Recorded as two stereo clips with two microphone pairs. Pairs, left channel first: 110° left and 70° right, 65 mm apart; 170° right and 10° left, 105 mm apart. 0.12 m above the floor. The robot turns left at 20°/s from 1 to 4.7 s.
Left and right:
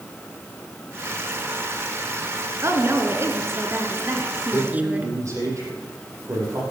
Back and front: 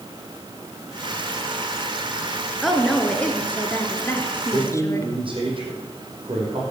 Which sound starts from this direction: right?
A woman speaking, at 2.6 s.